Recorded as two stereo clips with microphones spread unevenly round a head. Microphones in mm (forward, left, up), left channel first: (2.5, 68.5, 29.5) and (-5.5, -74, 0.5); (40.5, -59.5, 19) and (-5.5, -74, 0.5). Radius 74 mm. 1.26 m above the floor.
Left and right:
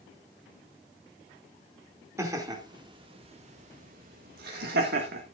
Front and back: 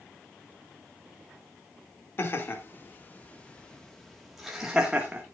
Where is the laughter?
20° right, 2.5 m; by 5.2 s 100° right, 2 m.